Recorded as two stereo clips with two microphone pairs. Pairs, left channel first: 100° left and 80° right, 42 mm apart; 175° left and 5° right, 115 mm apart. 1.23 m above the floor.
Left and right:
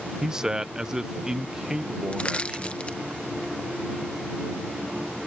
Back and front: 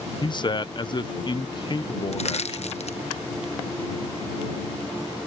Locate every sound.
0.2 s a man speaking: 155° right
2.1 s crushing: 160° left